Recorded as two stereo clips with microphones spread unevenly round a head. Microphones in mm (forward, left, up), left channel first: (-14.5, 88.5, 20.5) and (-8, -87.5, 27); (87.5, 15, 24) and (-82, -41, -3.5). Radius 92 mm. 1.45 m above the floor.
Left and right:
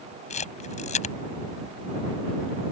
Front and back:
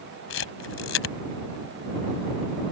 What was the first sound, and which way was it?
A camera shutter, 40° left.